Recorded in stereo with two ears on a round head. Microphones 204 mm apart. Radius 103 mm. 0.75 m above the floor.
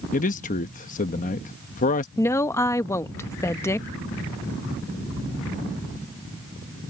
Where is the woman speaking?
10° left (ahead or behind).